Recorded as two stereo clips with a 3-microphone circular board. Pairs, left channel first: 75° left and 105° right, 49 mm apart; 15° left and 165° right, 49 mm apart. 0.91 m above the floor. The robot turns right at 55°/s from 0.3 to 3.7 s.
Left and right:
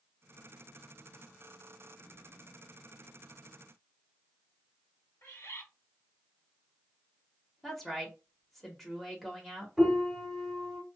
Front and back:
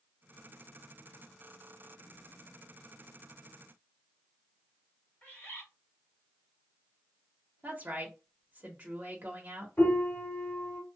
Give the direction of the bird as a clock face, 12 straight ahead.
10 o'clock.